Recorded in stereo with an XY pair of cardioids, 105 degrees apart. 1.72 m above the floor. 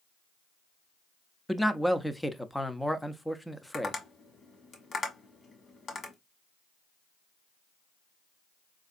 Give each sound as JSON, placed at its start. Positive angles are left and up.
{"t": 1.5, "sound": "a man speaking", "azimuth_deg": 5, "distance_m": 0.5}
{"t": 3.7, "sound": "tapping", "azimuth_deg": 45, "distance_m": 1.4}